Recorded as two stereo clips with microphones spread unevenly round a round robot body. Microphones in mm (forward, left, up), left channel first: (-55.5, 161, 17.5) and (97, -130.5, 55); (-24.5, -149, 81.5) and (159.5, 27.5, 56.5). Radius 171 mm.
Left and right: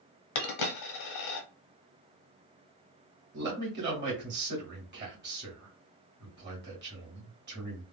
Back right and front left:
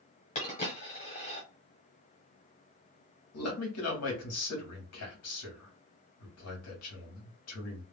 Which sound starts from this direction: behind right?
A man speaking, at 3.3 s.